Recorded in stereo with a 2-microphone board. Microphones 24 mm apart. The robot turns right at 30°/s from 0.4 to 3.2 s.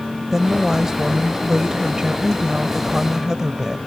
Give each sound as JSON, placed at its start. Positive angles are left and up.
{"t": 0.3, "sound": "a woman speaking", "azimuth_deg": -150}